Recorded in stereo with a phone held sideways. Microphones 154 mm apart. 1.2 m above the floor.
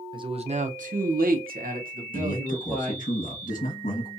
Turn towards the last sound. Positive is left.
turn(degrees=60)  # may be behind; listen again after turning